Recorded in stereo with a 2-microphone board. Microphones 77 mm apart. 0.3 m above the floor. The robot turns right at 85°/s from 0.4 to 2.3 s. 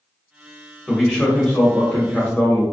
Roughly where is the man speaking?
Centre.